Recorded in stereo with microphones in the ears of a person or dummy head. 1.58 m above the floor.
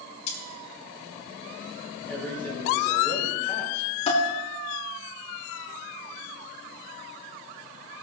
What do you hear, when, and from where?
0.3 s cutlery clinking: 40° left (ahead or behind), 3 m
2.1 s a man speaking: 10° left (ahead or behind), 5 m
4.1 s dishes clattering: 40° left (ahead or behind), 3 m